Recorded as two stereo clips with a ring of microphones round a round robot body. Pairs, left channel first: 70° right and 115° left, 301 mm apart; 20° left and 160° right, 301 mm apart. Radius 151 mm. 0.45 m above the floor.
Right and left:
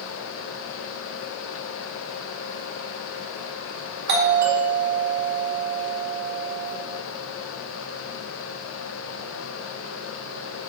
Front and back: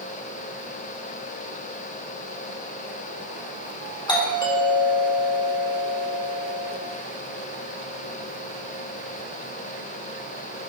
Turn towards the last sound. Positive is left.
turn(degrees=90)